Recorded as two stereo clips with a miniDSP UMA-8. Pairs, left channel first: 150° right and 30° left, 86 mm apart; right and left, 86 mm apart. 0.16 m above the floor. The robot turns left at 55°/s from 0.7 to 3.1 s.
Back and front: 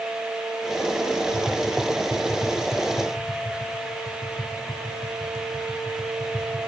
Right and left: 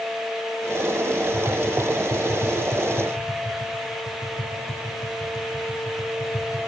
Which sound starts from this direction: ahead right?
Tapping, at 1.3 s.